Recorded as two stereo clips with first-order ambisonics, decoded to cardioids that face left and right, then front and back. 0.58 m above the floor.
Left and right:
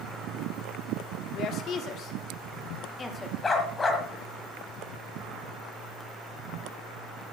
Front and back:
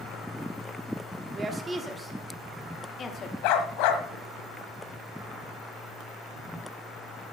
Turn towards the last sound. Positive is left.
turn(degrees=15)